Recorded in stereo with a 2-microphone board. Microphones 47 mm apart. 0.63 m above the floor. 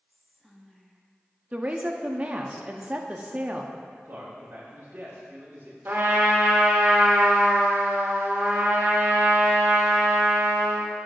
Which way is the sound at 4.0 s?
50° right (ahead or behind).